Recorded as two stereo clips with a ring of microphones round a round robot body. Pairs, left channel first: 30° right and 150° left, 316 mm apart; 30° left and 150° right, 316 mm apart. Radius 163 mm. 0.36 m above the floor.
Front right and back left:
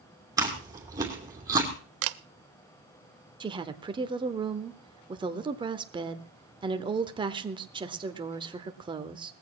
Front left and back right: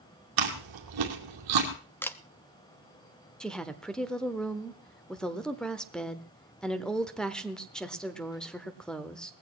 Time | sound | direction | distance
0.4 | chewing | 130° right | 2.5 m
2.0 | a camera shutter | 115° left | 0.5 m
3.4 | a woman speaking | 115° left | 1.0 m